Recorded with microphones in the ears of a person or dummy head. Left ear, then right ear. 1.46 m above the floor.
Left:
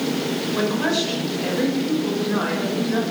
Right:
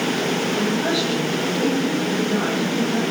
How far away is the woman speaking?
About 7 m.